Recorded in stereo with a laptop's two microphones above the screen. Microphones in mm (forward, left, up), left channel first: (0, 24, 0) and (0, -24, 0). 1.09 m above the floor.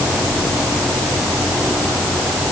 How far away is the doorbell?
I don't hear a doorbell.